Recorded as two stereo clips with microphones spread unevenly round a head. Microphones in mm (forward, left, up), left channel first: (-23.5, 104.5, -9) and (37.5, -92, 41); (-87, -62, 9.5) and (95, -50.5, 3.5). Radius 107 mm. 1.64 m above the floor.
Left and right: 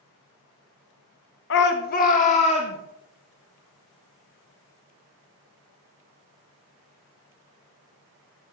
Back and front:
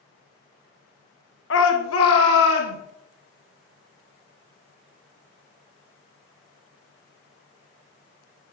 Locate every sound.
1.5 s a shout: 150° left, 1.3 m; by 2.8 s 175° left, 2.5 m